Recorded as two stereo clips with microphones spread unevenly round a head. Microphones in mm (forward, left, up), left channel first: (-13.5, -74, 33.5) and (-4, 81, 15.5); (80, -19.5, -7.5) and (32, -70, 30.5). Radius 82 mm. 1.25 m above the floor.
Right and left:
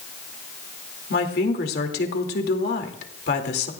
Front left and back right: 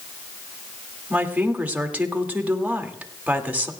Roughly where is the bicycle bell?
I don't hear a bicycle bell.